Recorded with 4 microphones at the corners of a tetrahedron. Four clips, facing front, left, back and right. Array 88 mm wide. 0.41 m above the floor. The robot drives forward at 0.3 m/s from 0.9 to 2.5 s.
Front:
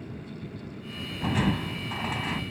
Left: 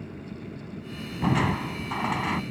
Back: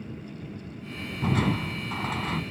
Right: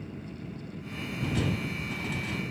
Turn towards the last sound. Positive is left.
turn(degrees=110)